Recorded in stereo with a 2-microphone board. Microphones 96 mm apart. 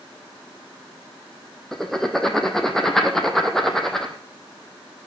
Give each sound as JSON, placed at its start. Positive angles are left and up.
{"t": 1.7, "sound": "writing", "side_deg": 5, "distance_m": 1.5}